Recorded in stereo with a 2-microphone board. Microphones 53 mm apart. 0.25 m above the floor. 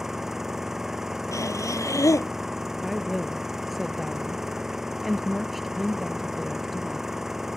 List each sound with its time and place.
0.0 s an engine running: 10° right (ahead or behind)
1.3 s breathing: 75° left (ahead or behind)
2.8 s a woman speaking: centre (ahead or behind)